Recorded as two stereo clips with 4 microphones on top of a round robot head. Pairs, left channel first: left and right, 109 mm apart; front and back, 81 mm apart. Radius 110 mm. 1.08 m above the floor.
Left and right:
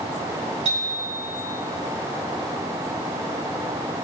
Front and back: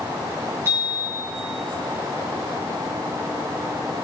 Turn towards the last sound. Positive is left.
turn(degrees=-115)